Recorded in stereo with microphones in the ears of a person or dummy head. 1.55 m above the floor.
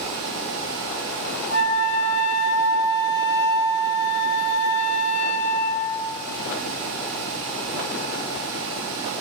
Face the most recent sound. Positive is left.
turn(degrees=10)  # may be behind; listen again after turning